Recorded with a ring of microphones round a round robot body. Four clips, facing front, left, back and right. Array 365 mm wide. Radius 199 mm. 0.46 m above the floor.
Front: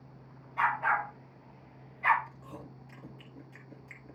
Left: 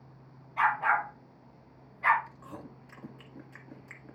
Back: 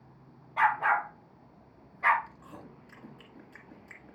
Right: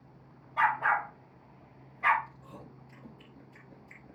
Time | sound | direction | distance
0.6 | a dog barking | 165° right | 5 m
2.3 | chewing | 100° left | 1.8 m